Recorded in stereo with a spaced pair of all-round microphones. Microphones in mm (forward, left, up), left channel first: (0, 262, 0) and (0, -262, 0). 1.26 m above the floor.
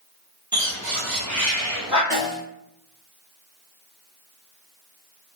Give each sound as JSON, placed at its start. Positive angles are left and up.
{"t": 0.5, "sound": "a bird", "side_deg": -30, "distance_m": 1.1}
{"t": 2.1, "sound": "a snare drum", "side_deg": 5, "distance_m": 1.6}